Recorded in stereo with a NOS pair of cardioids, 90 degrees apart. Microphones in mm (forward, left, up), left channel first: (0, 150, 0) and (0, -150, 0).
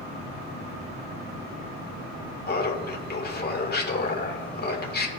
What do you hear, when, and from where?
2.5 s laughter: 30° left, 1.7 m